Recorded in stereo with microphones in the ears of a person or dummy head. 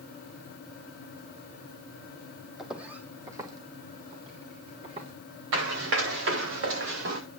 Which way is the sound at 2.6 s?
5° right (ahead or behind).